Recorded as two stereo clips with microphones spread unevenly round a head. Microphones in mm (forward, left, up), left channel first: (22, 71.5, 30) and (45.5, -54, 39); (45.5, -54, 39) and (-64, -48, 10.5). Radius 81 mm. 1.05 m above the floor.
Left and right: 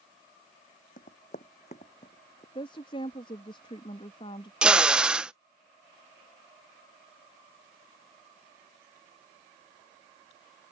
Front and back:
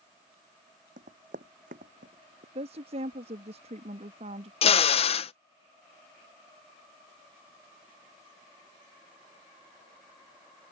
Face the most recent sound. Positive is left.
turn(degrees=5)